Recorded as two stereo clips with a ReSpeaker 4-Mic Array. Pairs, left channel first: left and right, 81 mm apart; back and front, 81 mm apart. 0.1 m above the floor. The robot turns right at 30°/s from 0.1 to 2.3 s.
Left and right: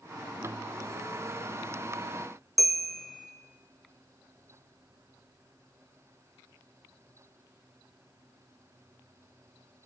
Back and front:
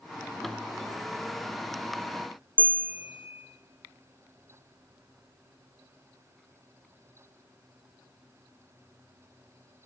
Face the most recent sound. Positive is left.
turn(degrees=180)